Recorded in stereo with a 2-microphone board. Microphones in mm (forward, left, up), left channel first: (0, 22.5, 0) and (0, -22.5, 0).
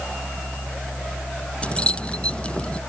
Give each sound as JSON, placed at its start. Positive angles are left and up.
{"t": 1.6, "sound": "keys jangling", "side_deg": 25}